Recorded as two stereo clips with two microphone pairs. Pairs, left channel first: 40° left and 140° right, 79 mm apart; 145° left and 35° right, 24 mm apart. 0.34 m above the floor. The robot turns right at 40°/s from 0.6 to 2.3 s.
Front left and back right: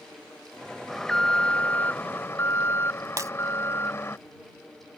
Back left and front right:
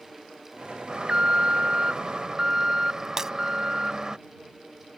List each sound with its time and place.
0.9 s an alarm: 45° right; by 4.2 s 10° left
3.2 s breaking glass: 95° right